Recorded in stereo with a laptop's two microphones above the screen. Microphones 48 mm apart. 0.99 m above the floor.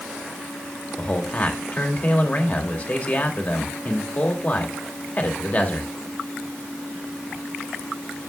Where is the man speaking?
35° left (ahead or behind), 2.5 m.